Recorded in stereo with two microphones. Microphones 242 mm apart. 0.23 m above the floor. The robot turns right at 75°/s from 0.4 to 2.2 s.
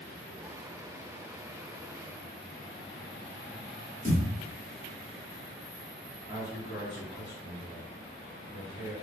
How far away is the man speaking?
About 1.4 m.